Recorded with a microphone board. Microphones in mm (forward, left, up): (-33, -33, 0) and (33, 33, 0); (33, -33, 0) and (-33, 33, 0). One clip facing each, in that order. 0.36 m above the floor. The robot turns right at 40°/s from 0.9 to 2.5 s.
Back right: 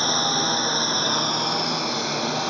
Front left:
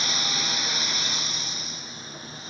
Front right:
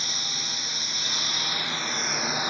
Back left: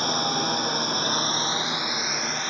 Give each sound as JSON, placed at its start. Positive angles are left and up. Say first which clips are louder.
{"t": 0.0, "sound": "a lawn mower", "louder": "back right 9 dB, back left 13 dB", "azimuth_deg": 175}